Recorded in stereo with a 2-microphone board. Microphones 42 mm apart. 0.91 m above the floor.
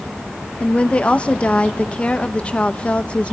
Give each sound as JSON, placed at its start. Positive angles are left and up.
{"t": 0.6, "sound": "a woman speaking", "side_deg": 25, "distance_m": 0.7}